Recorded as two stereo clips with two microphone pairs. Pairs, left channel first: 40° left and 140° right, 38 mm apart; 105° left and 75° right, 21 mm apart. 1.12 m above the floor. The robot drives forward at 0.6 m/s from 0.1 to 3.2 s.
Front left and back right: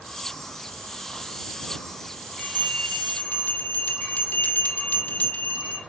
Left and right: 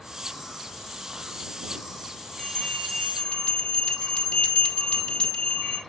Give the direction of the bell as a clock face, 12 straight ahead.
10 o'clock.